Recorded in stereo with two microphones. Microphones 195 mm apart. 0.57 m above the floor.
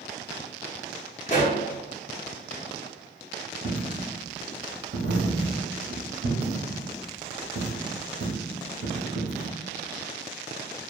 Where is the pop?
35° left (ahead or behind), 0.9 m.